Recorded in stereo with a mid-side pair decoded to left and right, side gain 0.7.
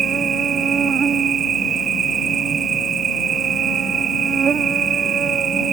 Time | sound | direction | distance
0.0 | an insect | 35° right | ?